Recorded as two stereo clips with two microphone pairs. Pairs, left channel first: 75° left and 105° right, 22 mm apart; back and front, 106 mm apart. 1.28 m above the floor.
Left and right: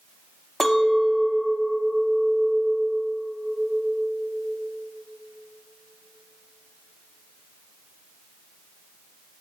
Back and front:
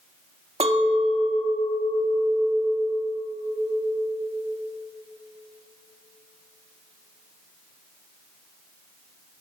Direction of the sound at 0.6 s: Straight ahead.